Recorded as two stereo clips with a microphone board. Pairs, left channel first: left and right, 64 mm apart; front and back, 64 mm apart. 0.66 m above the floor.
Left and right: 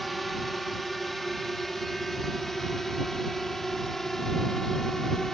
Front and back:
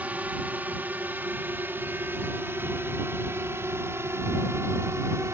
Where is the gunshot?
I don't hear a gunshot.